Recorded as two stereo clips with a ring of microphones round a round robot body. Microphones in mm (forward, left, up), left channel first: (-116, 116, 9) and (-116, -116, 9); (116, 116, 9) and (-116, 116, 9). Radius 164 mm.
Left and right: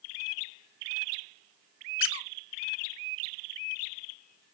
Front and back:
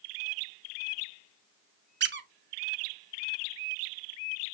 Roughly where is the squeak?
Behind left.